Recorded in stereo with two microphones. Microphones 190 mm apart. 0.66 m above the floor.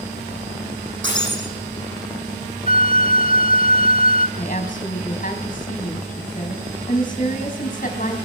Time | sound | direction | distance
1.0 | breaking glass | 85° right | 10 m
2.7 | a flute | 50° left (ahead or behind) | 0.6 m
4.4 | a woman speaking | 45° left (ahead or behind) | 4 m